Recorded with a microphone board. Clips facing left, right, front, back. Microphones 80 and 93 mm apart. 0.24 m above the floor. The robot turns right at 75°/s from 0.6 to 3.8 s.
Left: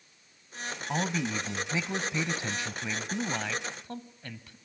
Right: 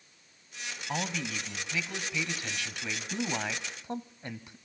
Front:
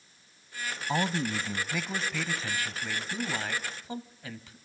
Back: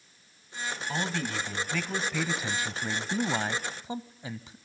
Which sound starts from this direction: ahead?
A man speaking, at 0.9 s.